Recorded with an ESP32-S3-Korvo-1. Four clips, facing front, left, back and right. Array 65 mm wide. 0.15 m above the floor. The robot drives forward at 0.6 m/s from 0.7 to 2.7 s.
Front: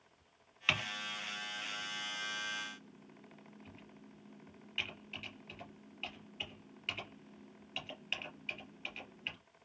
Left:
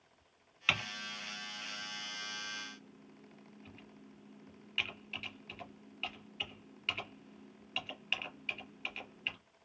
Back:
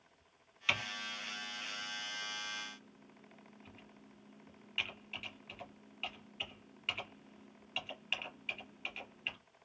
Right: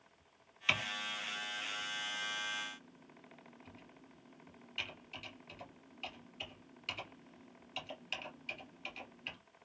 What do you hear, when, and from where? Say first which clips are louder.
0.7 s typing on a keyboard: even, front 1 dB; 40° left, 1.9 m; by 9.4 s 110° left, 1.6 m